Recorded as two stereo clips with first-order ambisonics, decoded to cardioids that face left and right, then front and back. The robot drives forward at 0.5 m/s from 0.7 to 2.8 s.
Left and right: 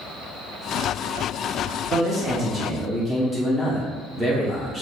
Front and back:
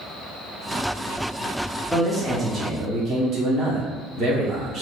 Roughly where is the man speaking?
Right.